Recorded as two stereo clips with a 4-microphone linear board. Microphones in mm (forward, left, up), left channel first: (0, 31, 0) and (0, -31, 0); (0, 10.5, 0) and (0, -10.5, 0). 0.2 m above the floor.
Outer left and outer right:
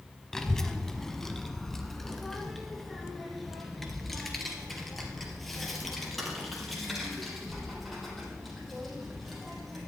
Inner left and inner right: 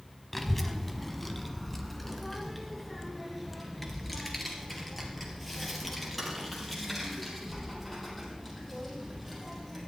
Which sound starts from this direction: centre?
A child speaking, at 0.3 s.